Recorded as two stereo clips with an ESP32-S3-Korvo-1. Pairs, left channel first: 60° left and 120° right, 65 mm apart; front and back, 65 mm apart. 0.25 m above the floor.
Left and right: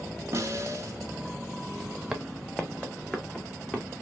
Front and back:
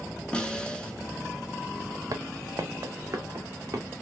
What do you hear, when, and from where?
0.3 s a snare drum: 75° right, 0.8 m
2.1 s footsteps: 155° left, 0.5 m; by 3.9 s 135° left, 1.4 m